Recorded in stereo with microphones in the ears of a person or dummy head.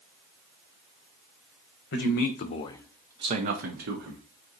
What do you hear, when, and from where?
1.9 s a man speaking: 65° left (ahead or behind), 0.9 m; by 4.2 s 60° right (ahead or behind), 1.1 m